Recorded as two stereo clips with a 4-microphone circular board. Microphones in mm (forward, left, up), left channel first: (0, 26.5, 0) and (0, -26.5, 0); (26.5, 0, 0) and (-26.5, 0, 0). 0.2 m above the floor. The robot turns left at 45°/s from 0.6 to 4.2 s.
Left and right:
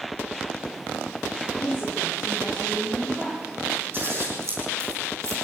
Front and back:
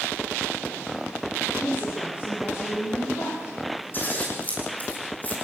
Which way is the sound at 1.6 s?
50° left.